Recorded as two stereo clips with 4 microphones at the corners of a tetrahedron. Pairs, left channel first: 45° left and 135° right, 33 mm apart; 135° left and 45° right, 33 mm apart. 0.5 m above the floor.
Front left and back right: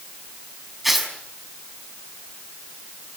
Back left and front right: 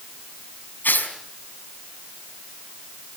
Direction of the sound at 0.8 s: 140° left.